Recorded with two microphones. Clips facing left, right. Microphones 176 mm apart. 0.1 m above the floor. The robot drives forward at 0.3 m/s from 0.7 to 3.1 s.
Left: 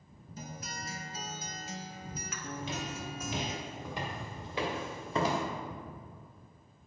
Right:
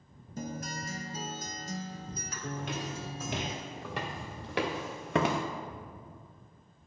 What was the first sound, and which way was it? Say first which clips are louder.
A guitar: right 6 dB; 50° right (ahead or behind).